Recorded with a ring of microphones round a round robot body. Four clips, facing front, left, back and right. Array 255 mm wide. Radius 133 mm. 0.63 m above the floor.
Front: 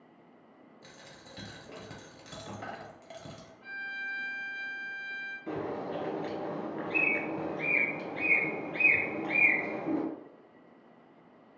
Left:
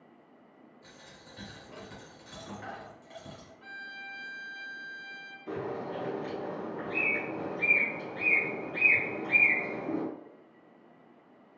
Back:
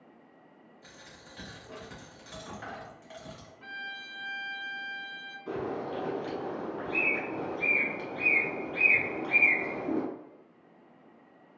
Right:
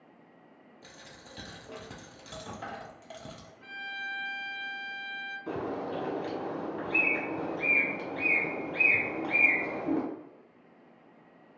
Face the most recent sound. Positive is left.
turn(degrees=-60)